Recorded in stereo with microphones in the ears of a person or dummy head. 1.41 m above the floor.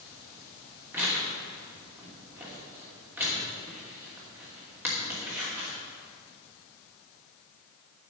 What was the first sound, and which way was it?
Tearing paper, 10° right (ahead or behind).